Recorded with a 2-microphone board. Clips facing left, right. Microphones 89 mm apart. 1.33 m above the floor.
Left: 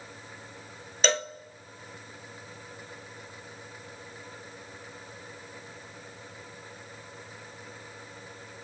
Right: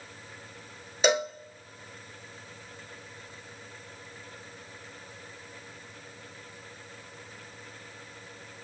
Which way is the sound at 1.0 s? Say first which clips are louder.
Right 3 dB; 10° right (ahead or behind).